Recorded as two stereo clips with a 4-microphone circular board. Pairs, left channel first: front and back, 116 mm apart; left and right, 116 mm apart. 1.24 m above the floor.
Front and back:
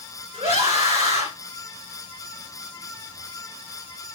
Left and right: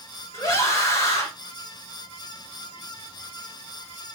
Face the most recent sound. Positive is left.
turn(degrees=155)